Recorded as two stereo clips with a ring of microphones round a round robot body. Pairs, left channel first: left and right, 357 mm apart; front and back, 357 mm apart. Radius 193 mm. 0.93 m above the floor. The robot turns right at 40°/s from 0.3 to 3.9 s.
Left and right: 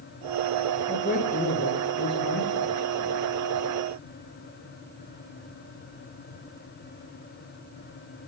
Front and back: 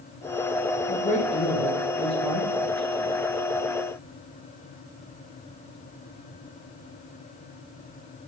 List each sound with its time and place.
0.9 s a man speaking: 35° left, 0.8 m; by 3.3 s 135° left, 0.8 m